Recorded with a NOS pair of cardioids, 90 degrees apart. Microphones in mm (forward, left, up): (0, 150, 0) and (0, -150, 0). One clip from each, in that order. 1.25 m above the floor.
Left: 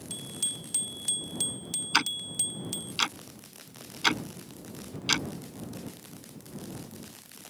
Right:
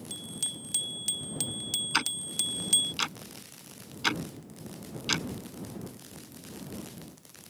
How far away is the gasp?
No gasp in this recording.